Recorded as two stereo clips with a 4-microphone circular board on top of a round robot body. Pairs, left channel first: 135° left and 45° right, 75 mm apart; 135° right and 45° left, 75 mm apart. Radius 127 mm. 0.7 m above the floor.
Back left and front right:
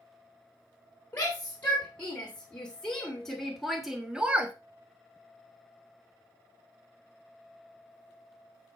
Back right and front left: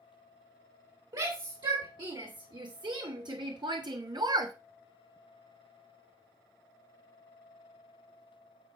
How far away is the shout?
About 3.5 m.